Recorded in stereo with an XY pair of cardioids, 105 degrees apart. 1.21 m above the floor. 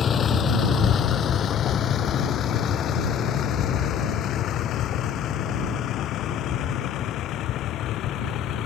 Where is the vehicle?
50° left; by 8.7 s 75° left.